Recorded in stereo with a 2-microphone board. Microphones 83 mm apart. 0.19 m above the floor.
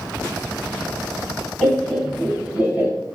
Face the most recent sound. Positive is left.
turn(degrees=-25)  # may be behind; listen again after turning